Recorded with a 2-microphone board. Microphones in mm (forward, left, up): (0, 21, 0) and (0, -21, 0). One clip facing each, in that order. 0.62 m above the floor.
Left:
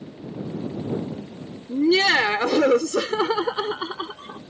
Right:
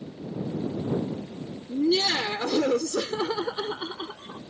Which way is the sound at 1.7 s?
70° left (ahead or behind).